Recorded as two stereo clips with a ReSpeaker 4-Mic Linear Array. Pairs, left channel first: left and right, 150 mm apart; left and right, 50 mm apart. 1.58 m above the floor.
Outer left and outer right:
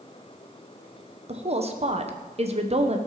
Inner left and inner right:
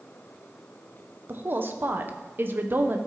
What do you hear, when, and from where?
1.3 s a woman speaking: 45° right (ahead or behind), 1.2 m